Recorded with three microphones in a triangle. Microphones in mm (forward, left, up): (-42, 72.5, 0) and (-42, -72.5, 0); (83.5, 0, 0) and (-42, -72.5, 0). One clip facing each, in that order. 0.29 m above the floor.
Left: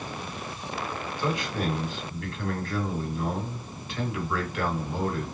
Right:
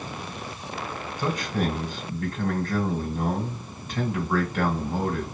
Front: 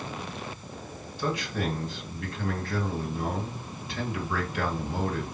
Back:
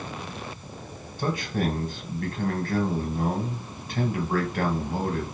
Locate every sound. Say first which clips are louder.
1.2 s a man speaking: right 2 dB, back 3 dB; 125° right, 1.9 m